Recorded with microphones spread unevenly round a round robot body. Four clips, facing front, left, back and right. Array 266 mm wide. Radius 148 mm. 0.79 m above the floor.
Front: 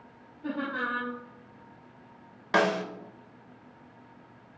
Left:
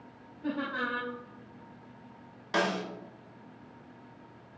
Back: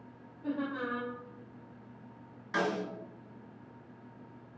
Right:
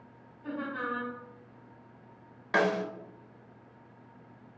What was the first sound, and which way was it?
Laughter, 50° left.